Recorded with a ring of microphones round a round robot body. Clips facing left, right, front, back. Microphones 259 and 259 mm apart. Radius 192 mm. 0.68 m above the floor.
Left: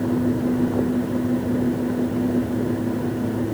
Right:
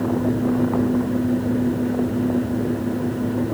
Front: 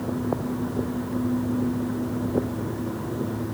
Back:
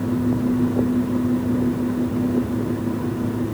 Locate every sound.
Only background noise.